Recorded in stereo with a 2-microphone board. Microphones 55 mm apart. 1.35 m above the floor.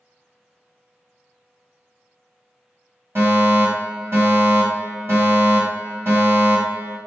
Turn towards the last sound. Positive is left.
turn(degrees=-45)  # may be behind; listen again after turning